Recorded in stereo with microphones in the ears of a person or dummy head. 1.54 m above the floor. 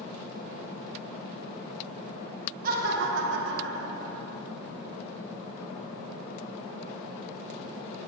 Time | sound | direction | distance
2.6 | laughter | 50° right (ahead or behind) | 1.1 m